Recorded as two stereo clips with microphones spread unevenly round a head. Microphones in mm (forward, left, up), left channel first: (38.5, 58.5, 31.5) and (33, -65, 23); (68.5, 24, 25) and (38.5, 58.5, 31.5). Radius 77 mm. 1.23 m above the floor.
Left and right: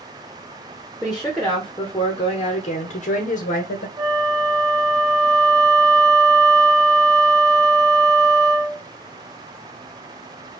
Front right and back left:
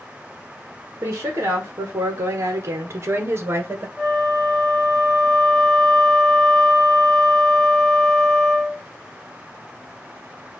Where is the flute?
140° right, 0.5 m.